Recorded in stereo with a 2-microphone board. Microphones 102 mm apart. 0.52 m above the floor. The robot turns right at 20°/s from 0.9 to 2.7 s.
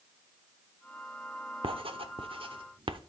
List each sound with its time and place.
1.6 s writing: 55° right (ahead or behind), 0.8 m; by 3.0 s 50° right (ahead or behind), 0.8 m